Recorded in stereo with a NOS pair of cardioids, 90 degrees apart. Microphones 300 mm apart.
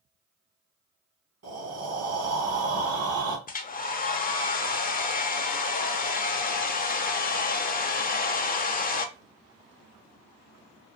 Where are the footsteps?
No footsteps in this recording.